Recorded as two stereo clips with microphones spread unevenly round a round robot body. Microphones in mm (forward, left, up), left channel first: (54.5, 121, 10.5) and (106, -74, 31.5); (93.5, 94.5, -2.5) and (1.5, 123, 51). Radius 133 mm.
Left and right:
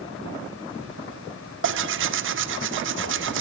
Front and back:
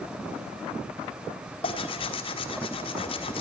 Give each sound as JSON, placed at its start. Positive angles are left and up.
{"t": 1.6, "sound": "tearing paper", "azimuth_deg": -50, "distance_m": 1.3}